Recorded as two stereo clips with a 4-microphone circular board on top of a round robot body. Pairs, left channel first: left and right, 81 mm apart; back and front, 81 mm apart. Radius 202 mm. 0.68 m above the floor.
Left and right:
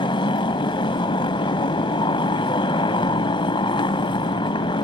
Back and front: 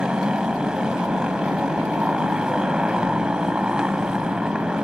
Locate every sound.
0.0 s a motorcycle: 80° left